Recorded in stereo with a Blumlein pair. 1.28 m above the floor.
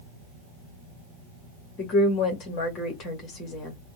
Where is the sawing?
No sawing in this recording.